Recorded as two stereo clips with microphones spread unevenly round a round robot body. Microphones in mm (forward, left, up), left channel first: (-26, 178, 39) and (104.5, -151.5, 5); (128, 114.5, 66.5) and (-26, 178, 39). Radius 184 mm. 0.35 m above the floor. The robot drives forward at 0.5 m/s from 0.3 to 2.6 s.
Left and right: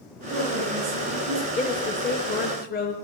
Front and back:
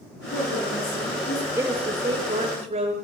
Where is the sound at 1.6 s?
170° left, 0.8 m; by 2.9 s 175° left, 1.2 m.